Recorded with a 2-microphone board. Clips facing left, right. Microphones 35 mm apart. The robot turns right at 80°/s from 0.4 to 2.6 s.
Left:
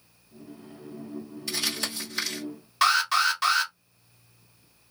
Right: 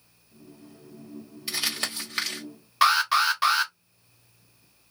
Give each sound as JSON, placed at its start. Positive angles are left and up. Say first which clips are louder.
{"t": 1.5, "sound": "crumpling", "louder": "right 1 dB", "side_deg": -15, "distance_m": 1.5}
{"t": 2.8, "sound": "an alarm", "louder": "right 1 dB", "side_deg": -10, "distance_m": 1.0}